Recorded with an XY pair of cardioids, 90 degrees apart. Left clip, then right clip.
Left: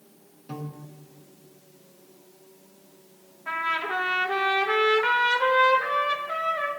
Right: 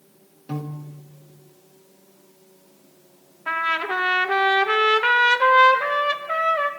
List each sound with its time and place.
0.5 s a piano: 40° right, 1.5 m
3.5 s a trumpet: 60° right, 1.0 m